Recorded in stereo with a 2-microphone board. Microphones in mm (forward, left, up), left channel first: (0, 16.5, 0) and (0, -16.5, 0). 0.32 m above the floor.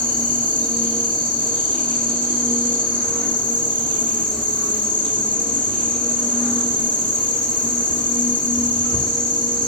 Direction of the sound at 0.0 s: 65° left (ahead or behind).